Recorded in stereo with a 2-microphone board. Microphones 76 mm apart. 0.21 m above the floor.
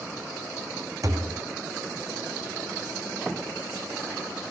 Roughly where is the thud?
Right.